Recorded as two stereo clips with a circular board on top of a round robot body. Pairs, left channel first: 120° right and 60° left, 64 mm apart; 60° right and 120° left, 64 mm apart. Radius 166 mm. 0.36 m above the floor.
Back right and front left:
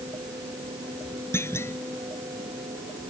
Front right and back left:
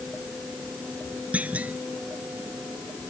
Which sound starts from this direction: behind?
A clunk, at 1.3 s.